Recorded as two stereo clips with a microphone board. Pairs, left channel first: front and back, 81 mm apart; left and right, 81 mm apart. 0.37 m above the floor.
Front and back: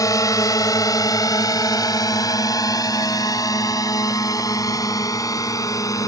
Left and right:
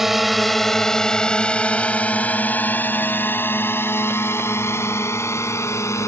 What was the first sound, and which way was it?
A drone, 5° right.